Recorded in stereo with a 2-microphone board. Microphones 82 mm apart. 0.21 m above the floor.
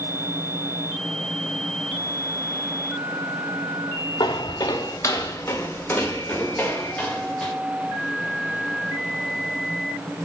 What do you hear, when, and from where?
4.2 s footsteps: 70° left (ahead or behind), 1.1 m; by 7.5 s 5° left (ahead or behind), 3 m